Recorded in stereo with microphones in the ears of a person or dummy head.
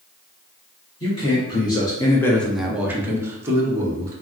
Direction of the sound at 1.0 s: 25° left (ahead or behind).